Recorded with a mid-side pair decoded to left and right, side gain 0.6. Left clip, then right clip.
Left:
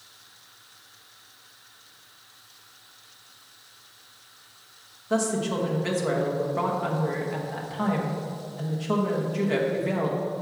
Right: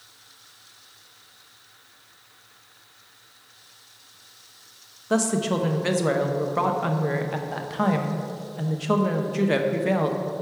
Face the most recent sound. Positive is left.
turn(degrees=-30)